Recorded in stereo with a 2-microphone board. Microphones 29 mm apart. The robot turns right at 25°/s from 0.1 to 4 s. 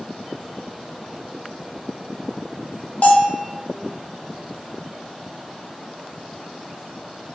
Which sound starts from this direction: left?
A bell, at 3.0 s.